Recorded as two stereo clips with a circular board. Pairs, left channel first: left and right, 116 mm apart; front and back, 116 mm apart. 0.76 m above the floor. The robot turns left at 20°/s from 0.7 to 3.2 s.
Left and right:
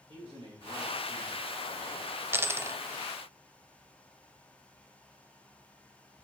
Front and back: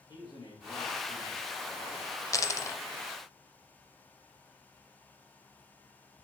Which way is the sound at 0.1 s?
60° right.